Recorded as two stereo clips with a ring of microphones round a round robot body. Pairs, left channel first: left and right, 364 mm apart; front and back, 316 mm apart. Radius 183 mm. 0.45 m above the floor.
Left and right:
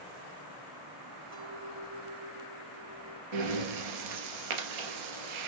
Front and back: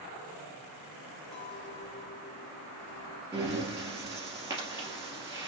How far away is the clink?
About 3 m.